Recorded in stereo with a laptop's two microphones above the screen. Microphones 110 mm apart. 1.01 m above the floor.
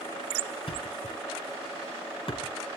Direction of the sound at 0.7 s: 50° left (ahead or behind).